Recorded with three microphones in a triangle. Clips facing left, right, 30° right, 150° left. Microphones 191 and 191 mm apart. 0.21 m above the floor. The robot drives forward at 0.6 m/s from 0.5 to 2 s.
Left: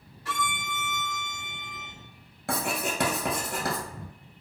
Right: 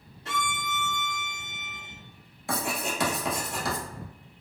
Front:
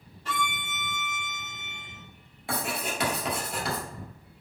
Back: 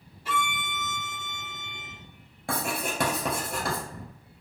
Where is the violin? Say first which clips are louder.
Even, back 2 dB; 130° right, 0.8 m; by 1.9 s 165° right, 1.4 m.